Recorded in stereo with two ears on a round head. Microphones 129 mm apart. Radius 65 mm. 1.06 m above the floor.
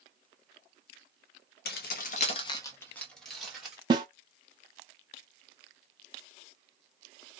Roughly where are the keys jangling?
Left.